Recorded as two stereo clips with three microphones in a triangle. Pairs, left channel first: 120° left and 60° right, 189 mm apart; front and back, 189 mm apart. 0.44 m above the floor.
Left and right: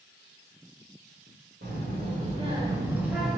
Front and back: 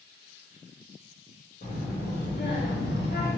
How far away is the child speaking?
About 1.3 m.